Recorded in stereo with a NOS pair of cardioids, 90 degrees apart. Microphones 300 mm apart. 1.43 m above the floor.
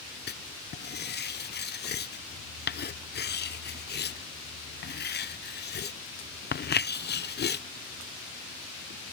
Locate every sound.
0.3 s writing: 35° left